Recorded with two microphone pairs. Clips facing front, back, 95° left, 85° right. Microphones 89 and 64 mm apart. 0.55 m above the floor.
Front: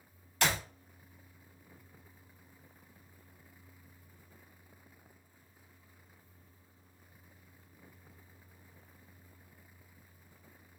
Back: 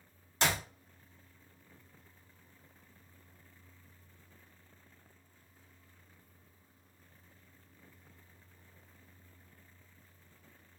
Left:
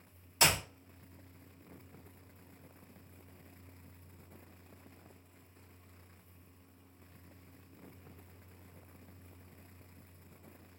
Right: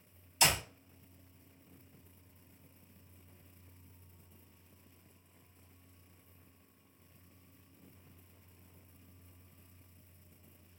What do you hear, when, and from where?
0.4 s a clap: 120° left, 1.3 m